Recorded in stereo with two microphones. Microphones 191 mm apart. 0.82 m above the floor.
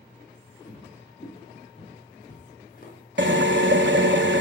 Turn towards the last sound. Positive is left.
turn(degrees=-75)  # may be behind; listen again after turning